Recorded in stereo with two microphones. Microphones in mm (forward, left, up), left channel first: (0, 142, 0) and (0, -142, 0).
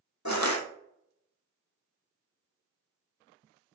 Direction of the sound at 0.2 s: 75° left (ahead or behind).